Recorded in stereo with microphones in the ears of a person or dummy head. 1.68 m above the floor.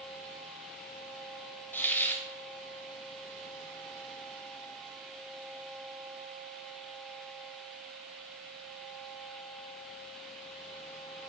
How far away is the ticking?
I don't hear ticking.